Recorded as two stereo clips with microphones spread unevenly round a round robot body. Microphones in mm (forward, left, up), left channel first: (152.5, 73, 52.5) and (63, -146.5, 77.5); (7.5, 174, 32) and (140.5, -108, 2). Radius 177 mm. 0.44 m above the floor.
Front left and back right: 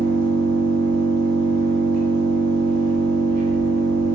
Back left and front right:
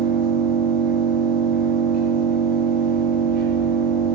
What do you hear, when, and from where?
0.0 s an engine running: 130° right, 3.5 m